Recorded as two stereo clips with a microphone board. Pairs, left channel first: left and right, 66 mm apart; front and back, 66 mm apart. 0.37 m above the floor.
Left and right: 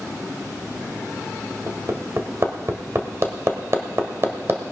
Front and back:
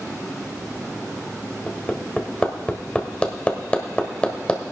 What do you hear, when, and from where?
1.7 s hammering: 65° right, 1.4 m